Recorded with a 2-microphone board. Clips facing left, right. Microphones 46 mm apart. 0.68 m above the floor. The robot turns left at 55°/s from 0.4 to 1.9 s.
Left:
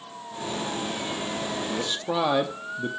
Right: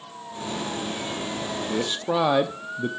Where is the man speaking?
15° right (ahead or behind), 0.7 m; by 2.9 s 5° right (ahead or behind), 0.7 m.